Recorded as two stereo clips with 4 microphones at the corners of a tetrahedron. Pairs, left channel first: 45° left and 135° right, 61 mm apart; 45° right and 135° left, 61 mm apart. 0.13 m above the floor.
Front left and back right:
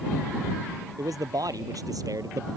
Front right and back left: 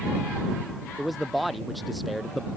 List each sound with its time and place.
1.0 s a man speaking: 135° right